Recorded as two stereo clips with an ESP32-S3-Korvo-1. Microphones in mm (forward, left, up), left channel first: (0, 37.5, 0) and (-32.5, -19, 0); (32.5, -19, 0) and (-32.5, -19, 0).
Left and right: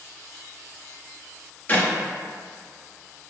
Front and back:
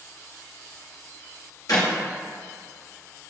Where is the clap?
5° left, 1.3 m.